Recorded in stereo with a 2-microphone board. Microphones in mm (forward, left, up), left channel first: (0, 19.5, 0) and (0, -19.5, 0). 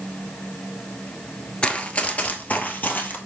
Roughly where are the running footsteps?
Left.